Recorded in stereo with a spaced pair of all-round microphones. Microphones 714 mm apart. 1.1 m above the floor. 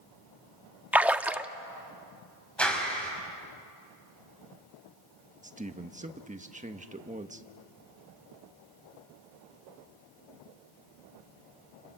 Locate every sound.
0.9 s a splash: 5° right (ahead or behind), 0.5 m
2.6 s a clap: centre (ahead or behind), 5 m
5.4 s a man speaking: 10° right (ahead or behind), 1.3 m